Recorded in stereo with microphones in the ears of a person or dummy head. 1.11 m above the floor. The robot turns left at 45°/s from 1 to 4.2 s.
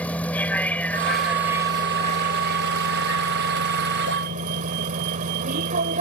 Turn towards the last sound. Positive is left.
turn(degrees=-135)